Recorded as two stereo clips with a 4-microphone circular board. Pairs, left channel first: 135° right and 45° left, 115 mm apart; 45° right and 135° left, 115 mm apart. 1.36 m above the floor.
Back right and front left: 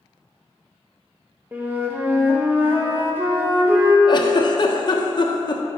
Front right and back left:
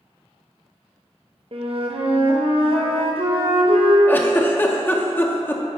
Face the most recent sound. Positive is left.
turn(degrees=-110)